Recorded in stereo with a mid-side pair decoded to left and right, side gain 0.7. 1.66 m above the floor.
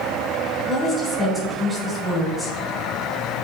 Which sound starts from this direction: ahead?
A woman speaking, at 0.7 s.